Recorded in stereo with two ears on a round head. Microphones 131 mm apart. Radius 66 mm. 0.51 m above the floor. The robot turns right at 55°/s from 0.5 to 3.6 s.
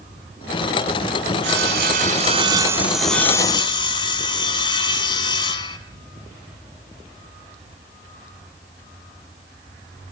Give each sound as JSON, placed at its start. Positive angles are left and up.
{"t": 1.4, "sound": "sawing", "azimuth_deg": -85, "distance_m": 1.9}